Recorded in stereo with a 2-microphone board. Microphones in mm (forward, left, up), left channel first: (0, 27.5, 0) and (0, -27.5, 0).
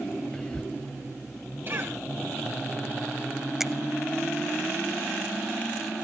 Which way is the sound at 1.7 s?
40° right (ahead or behind).